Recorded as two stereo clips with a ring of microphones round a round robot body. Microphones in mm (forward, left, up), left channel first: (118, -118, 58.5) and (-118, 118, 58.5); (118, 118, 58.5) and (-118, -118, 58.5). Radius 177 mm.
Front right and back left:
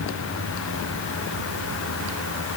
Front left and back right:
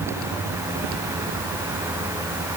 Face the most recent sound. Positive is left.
No sound to turn to.